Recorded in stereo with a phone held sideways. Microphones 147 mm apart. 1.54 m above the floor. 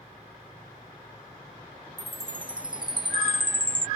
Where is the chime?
35° right (ahead or behind).